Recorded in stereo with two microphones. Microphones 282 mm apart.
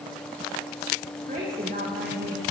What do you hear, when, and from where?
1.3 s a woman speaking: 35° right (ahead or behind), 5 m